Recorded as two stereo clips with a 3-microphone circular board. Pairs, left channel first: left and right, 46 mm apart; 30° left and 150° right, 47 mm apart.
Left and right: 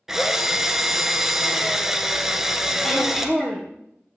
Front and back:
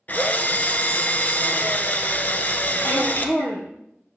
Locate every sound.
0.1 s a drill: 10° right, 1.0 m
2.8 s throat clearing: 10° left, 4 m